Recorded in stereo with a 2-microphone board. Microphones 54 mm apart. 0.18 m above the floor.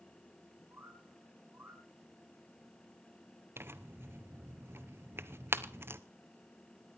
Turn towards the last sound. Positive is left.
turn(degrees=-50)  # may be behind; listen again after turning